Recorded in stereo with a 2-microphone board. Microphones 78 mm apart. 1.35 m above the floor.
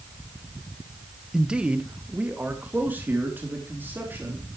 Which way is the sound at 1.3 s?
5° right (ahead or behind).